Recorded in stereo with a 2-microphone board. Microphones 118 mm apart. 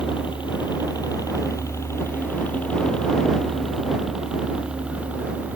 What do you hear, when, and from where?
0.0 s a helicopter: 45° left (ahead or behind); by 5.6 s 15° right (ahead or behind)